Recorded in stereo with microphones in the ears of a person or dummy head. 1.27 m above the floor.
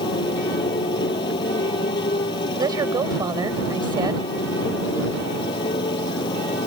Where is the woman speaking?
25° right (ahead or behind).